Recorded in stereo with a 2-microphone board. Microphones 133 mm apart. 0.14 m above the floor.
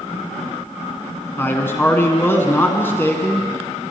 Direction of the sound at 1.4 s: 15° left (ahead or behind).